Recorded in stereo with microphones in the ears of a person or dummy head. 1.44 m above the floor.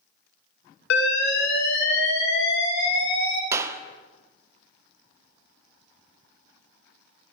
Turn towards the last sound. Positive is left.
turn(degrees=-20)  # may be behind; listen again after turning